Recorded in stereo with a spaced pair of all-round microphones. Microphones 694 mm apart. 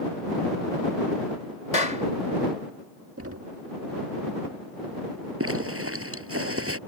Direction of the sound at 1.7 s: 55° left (ahead or behind).